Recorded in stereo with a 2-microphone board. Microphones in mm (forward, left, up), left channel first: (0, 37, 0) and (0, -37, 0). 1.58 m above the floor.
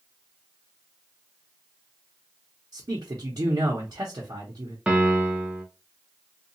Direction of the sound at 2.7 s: 55° right (ahead or behind).